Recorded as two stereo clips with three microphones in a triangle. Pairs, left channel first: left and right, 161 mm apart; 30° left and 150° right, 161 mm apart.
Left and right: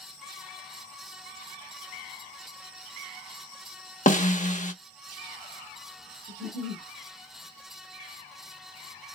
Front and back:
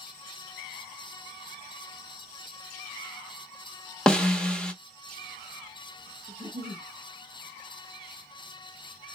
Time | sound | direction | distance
4.1 | a snare drum | 115° left | 0.6 m
6.3 | a giggle | 85° right | 0.7 m